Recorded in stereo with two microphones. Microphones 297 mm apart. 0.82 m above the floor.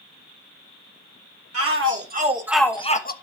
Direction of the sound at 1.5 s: 50° right (ahead or behind).